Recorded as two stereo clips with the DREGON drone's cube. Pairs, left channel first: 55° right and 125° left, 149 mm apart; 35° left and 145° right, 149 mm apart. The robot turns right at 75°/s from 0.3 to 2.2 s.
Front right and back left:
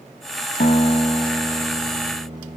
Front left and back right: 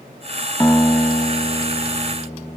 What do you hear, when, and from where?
0.6 s a guitar: 40° right, 1.8 m; by 2.6 s 80° left, 1.8 m